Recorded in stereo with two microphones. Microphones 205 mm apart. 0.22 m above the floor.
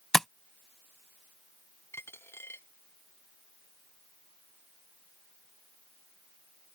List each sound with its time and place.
0.1 s tapping: centre (ahead or behind)
1.9 s a dropped coin: 10° left (ahead or behind)